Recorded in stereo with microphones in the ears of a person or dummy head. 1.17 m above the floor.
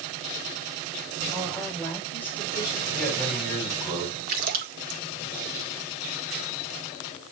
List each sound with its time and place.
1.3 s a woman speaking: 5° left (ahead or behind), 5 m; by 2.8 s 15° left (ahead or behind), 3.5 m
2.9 s a man speaking: 10° left (ahead or behind), 6 m
4.3 s a splash: 45° right (ahead or behind), 1.2 m